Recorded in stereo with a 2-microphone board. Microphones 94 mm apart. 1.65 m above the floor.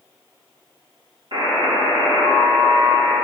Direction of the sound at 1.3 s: 55° right (ahead or behind).